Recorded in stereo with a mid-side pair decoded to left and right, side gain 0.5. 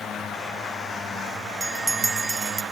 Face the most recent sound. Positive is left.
turn(degrees=-15)